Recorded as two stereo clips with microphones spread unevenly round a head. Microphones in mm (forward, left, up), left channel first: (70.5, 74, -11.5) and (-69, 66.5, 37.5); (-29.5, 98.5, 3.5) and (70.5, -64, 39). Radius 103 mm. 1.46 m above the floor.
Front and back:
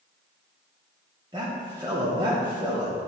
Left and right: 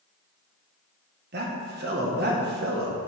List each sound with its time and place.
1.3 s a man speaking: 105° right, 1.8 m